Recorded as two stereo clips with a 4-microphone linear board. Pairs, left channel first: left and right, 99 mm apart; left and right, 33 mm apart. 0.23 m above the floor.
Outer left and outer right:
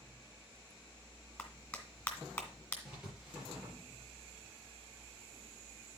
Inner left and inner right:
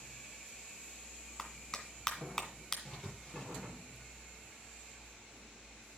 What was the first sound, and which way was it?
A clap, 10° left (ahead or behind).